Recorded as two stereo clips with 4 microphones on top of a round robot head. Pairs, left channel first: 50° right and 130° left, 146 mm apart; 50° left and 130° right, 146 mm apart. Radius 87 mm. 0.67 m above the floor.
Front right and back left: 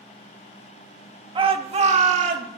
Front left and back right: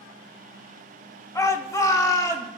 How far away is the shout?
About 1.2 m.